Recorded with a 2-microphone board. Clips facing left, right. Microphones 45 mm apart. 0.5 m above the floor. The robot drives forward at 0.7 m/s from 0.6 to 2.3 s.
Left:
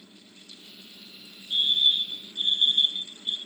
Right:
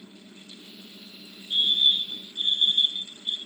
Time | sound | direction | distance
1.5 | a fire alarm | 40° right (ahead or behind) | 3.5 m